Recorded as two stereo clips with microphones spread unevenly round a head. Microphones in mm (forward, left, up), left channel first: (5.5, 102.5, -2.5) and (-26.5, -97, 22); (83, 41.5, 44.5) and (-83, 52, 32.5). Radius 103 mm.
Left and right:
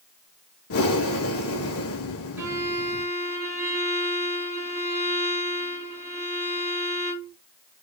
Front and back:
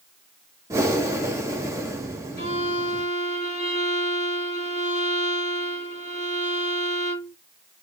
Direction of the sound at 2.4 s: 30° right.